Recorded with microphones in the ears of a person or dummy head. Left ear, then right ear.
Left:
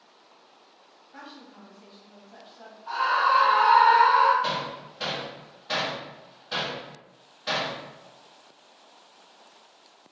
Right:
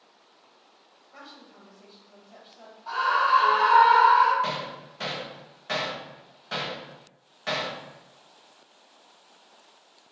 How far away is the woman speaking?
About 1.4 m.